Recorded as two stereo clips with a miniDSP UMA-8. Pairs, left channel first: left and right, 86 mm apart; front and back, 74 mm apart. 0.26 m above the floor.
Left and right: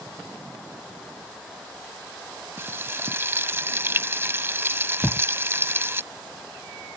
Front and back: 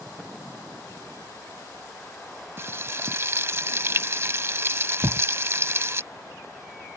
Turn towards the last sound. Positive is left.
turn(degrees=-175)